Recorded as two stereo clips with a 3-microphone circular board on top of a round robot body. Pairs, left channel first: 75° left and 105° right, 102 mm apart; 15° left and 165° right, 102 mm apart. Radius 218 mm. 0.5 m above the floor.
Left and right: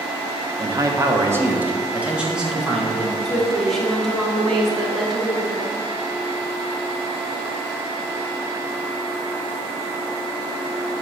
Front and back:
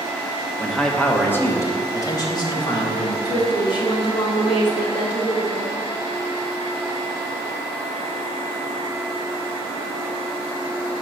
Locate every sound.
0.6 s a man speaking: 75° right, 1.2 m; by 3.1 s 15° right, 2 m
3.2 s a woman speaking: 10° right, 2 m